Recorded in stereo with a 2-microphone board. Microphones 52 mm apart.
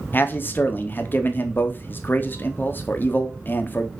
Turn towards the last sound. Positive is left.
turn(degrees=40)  # may be behind; listen again after turning